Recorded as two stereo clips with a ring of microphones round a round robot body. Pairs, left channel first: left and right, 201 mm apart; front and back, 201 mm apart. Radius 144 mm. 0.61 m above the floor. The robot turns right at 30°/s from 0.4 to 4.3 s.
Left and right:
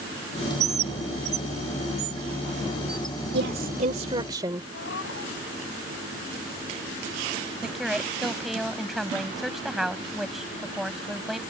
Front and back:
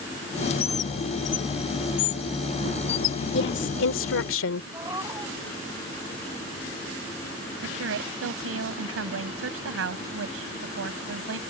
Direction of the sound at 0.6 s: 70° right.